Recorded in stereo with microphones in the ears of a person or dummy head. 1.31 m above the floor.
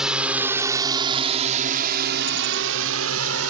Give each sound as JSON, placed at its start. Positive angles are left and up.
{"t": 0.0, "sound": "a drone", "side_deg": -5}